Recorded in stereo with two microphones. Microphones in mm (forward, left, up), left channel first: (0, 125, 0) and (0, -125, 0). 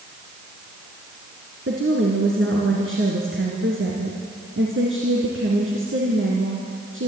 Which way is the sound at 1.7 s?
55° right (ahead or behind).